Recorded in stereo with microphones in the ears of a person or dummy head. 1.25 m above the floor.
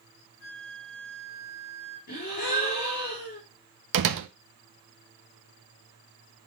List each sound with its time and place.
0.4 s a flute: 40° left (ahead or behind), 4.5 m
2.1 s a gasp: 50° left (ahead or behind), 4.5 m
3.9 s a door slam: 70° right (ahead or behind), 0.9 m